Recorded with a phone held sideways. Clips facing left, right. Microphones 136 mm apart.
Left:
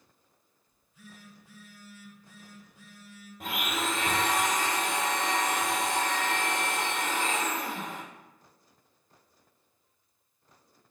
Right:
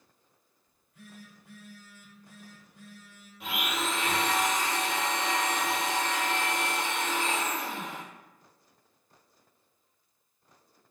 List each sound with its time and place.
0.7 s a phone buzzing: 60° right (ahead or behind), 1.1 m
3.4 s a blender: 50° left (ahead or behind), 0.9 m